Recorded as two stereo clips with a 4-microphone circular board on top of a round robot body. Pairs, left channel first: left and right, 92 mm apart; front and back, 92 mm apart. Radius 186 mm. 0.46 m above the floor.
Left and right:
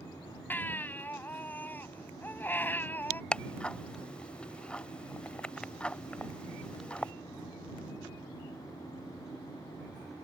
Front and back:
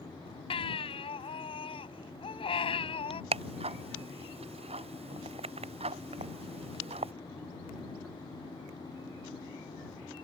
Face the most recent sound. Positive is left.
turn(degrees=170)